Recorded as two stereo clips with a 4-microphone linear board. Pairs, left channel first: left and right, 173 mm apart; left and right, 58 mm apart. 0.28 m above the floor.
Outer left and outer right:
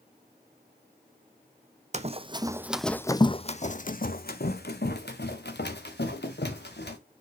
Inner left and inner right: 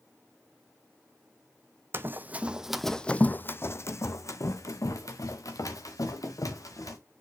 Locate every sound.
1.9 s running footsteps: 40° right (ahead or behind), 0.8 m; by 7.0 s 80° left, 2.5 m